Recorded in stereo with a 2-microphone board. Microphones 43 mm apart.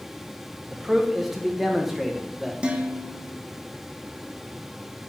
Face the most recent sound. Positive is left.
turn(degrees=-25)  # may be behind; listen again after turning